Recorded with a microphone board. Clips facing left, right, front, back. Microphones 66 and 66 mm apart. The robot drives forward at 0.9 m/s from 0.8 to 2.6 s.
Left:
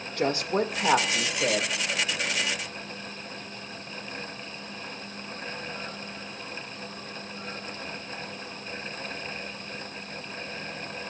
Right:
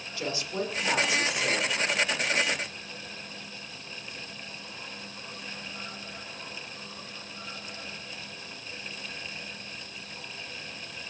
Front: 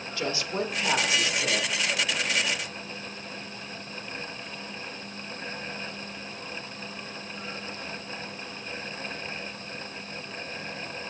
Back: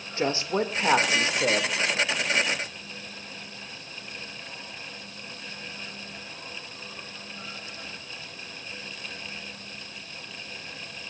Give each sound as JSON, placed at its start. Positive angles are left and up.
{"t": 0.2, "sound": "a woman speaking", "azimuth_deg": 125, "distance_m": 1.7}